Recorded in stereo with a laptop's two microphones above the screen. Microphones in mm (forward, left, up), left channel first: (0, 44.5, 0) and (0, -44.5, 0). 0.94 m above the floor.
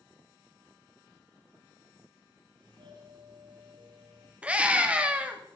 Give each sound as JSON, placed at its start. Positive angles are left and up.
{"t": 2.6, "sound": "a doorbell", "side_deg": -65, "distance_m": 6.0}
{"t": 4.4, "sound": "a scream", "side_deg": -15, "distance_m": 2.0}